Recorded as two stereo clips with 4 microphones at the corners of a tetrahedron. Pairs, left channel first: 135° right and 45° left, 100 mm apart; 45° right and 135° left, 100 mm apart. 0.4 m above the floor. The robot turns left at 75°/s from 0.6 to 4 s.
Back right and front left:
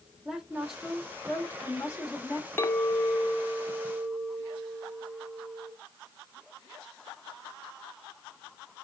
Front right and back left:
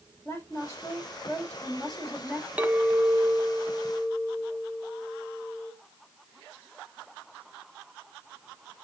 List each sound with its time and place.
0.2 s a woman speaking: 30° right, 1.4 m; by 2.5 s 170° right, 1.4 m
2.6 s a clink: 175° right, 0.6 m; by 5.7 s 80° left, 0.6 m